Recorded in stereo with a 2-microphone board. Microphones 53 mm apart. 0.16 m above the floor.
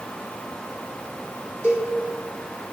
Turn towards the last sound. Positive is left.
turn(degrees=40)  # may be behind; listen again after turning